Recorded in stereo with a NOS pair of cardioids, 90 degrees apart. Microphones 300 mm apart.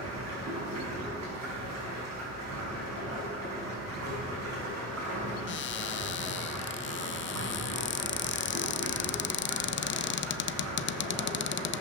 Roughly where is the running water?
Ahead right.